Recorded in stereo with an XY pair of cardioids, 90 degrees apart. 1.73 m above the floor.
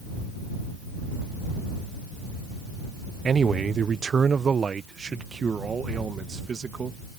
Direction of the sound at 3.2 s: 45° right.